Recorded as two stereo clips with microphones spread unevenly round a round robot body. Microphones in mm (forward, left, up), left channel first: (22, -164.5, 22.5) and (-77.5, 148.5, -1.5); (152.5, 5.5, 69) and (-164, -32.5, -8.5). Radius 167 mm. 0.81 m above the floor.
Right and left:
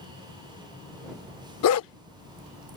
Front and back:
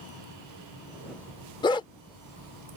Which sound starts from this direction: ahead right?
A dog barking, at 1.6 s.